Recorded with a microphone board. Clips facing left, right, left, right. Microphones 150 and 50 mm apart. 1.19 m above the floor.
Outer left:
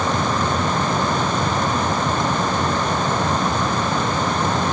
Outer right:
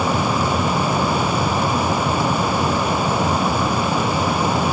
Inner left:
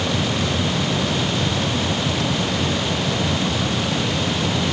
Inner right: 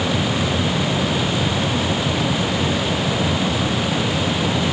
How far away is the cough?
I don't hear a cough.